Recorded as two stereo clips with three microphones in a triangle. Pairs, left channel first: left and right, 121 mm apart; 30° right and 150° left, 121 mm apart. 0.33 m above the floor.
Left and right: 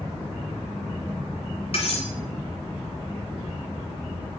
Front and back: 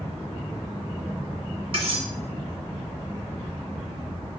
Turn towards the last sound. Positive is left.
turn(degrees=120)